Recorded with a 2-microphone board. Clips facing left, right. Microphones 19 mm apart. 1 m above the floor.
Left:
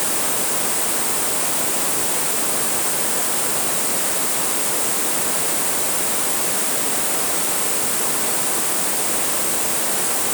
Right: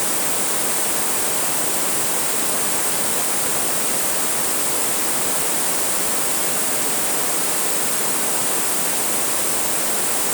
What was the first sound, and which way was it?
Only background noise.